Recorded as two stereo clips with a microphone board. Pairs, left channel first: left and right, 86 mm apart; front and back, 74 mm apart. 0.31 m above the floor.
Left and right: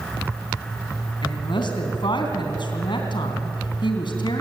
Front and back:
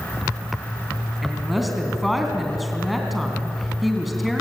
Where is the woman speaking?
90° left, 3 m.